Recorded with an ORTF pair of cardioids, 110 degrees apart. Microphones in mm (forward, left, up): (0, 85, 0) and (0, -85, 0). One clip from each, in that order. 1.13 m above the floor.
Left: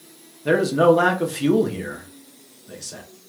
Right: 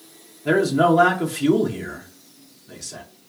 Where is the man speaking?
5° left, 1.1 m.